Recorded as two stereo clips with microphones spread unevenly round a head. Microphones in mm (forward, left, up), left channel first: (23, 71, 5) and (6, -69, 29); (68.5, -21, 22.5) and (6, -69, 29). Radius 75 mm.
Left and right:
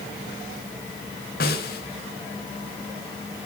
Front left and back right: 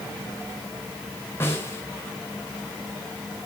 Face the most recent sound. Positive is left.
turn(degrees=110)